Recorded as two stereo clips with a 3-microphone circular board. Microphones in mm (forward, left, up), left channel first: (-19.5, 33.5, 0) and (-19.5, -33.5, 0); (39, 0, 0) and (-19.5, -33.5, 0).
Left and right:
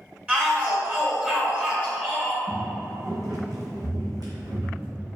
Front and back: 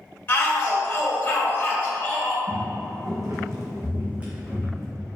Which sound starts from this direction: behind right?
Footsteps, at 2.5 s.